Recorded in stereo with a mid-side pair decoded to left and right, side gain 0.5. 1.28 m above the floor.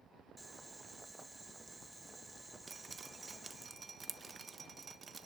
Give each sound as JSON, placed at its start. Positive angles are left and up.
{"t": 0.4, "sound": "boiling", "azimuth_deg": -15, "distance_m": 1.7}
{"t": 2.7, "sound": "dripping", "azimuth_deg": -30, "distance_m": 1.3}